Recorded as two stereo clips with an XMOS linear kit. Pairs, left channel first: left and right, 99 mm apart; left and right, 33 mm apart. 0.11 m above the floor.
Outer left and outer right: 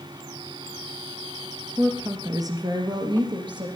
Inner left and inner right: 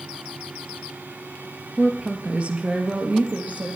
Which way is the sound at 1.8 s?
30° right (ahead or behind).